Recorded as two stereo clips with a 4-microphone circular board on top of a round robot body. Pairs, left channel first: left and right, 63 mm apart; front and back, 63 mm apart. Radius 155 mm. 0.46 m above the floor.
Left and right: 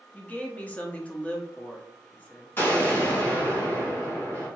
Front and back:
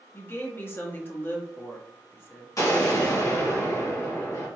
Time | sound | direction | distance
0.1 | a woman speaking | 35° left | 1.2 m
2.6 | an explosion | 35° left | 2 m